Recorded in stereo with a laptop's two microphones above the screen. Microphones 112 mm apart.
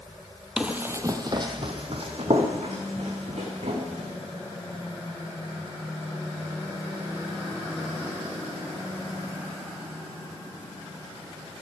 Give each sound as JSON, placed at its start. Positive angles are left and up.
{"t": 0.6, "sound": "running footsteps", "side_deg": -5, "distance_m": 1.1}